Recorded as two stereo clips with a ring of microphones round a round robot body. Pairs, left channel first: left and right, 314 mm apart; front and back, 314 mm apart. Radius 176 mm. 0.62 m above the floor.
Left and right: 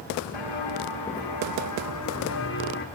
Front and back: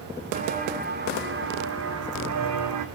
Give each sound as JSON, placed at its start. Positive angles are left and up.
{"t": 0.3, "sound": "footsteps", "azimuth_deg": 115, "distance_m": 3.0}